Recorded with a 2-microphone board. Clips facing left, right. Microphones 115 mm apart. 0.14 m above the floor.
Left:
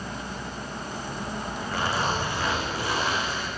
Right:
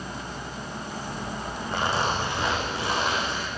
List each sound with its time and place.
1.7 s a zipper: 25° right (ahead or behind), 9.5 m